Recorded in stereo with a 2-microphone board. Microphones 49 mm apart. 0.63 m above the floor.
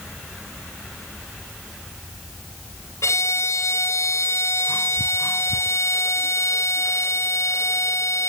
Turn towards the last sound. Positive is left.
turn(degrees=70)  # may be behind; listen again after turning